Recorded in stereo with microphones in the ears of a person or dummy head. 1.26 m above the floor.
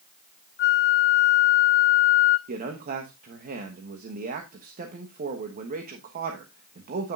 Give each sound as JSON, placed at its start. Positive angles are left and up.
{"t": 0.6, "sound": "a flute", "side_deg": 60, "distance_m": 0.7}
{"t": 2.5, "sound": "a man speaking", "side_deg": -45, "distance_m": 1.2}